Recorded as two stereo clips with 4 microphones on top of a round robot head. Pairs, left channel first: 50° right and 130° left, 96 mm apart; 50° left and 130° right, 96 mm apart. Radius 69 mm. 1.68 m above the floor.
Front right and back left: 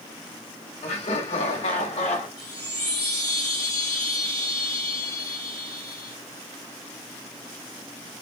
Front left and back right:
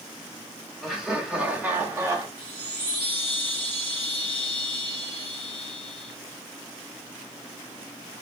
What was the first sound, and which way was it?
Laughter, 40° right.